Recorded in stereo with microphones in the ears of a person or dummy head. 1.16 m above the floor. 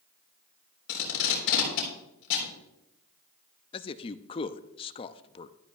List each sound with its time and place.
0.9 s tape being pulled: 65° left (ahead or behind), 3.5 m
3.7 s a man speaking: 30° left (ahead or behind), 0.5 m